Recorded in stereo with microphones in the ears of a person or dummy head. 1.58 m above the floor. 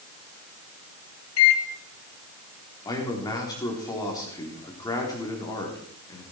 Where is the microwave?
80° left, 1.7 m.